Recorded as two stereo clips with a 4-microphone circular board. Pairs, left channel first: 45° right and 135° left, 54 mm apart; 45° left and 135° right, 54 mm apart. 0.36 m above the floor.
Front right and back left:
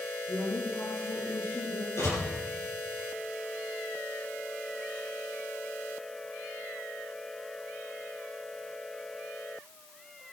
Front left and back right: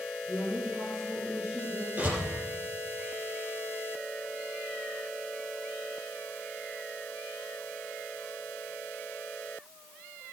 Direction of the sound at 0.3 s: 55° right.